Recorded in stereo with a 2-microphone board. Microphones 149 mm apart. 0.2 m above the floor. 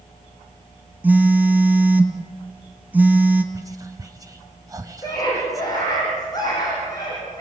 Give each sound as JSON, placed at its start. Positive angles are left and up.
{"t": 1.0, "sound": "a phone buzzing", "side_deg": -10, "distance_m": 1.5}
{"t": 3.5, "sound": "whispering", "side_deg": -25, "distance_m": 1.0}
{"t": 5.0, "sound": "a scream", "side_deg": 25, "distance_m": 7.5}